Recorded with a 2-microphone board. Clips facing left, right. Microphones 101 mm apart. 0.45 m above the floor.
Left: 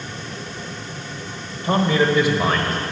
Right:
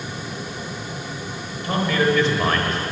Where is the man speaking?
30° left (ahead or behind), 1.6 m; by 2.8 s 5° right (ahead or behind), 1.7 m.